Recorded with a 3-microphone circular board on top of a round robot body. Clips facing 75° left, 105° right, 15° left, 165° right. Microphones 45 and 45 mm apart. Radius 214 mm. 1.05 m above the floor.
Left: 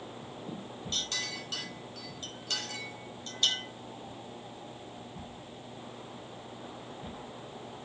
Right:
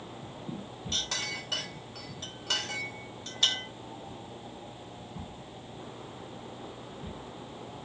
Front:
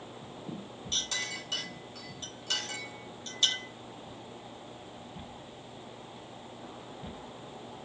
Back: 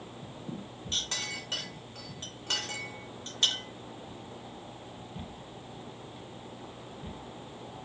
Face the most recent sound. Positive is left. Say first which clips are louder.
# right 2 dB, even
turn(degrees=-115)